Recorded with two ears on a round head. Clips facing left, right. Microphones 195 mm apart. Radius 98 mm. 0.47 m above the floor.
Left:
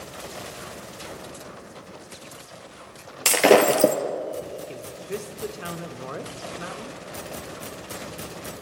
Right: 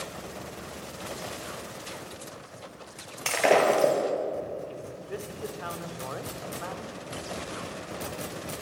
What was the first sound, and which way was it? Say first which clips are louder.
Breaking glass: left 6 dB; 50° left (ahead or behind).